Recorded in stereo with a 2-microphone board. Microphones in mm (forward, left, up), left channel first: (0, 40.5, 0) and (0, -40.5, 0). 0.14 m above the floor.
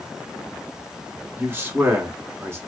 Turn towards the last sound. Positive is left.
turn(degrees=-25)  # may be behind; listen again after turning